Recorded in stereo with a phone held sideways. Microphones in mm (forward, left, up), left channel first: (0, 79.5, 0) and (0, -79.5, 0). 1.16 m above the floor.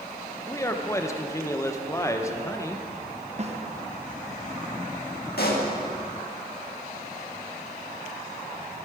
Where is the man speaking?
20° left (ahead or behind), 0.9 m.